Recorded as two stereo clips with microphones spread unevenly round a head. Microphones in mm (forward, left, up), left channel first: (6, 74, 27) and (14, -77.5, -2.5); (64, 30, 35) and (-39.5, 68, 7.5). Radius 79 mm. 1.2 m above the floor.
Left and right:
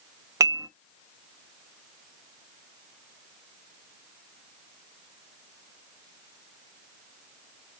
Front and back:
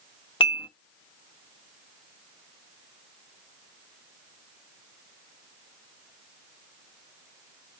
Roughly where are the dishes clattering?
Ahead.